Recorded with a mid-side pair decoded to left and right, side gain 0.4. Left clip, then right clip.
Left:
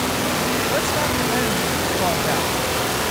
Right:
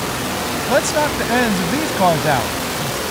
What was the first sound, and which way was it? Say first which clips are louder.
A man speaking: right 4 dB; 65° right.